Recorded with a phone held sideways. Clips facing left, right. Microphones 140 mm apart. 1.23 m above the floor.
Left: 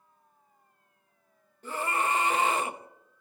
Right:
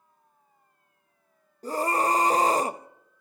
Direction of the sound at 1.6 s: 35° right (ahead or behind).